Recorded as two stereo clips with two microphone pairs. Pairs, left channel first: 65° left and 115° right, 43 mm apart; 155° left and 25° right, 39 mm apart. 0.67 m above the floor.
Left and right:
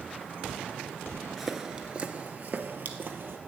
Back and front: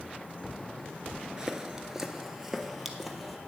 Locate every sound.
1.4 s footsteps: 45° right, 0.6 m; by 3.4 s 110° right, 1.2 m